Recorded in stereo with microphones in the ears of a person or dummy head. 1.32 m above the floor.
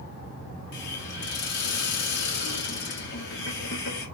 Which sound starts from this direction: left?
A hiss, at 0.7 s.